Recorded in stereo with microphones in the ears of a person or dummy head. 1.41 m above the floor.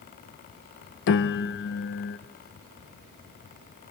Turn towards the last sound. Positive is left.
turn(degrees=60)  # may be behind; listen again after turning